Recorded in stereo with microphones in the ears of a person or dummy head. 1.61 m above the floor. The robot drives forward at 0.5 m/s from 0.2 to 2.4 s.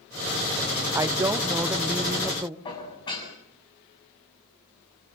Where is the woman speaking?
15° right (ahead or behind), 0.8 m; by 2.5 s 5° right (ahead or behind), 1.5 m.